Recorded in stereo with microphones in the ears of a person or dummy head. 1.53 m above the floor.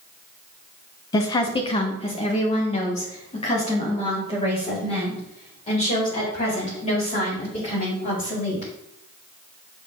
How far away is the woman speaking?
About 0.9 m.